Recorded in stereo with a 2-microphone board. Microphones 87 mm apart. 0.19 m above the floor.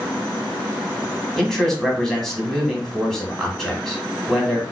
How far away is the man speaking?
About 1.3 m.